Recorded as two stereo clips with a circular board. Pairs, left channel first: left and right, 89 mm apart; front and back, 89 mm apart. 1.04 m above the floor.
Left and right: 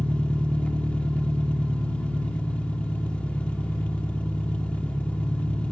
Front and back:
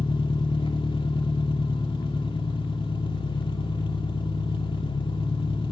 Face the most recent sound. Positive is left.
turn(degrees=15)